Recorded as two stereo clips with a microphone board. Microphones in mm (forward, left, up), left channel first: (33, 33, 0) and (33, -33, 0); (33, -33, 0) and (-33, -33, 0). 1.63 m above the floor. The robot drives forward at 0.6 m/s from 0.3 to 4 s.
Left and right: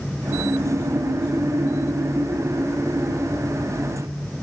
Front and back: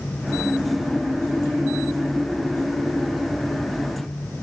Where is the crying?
I don't hear crying.